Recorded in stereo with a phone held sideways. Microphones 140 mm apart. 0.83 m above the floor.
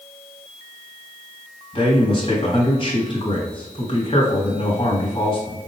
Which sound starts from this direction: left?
A man speaking, at 1.7 s.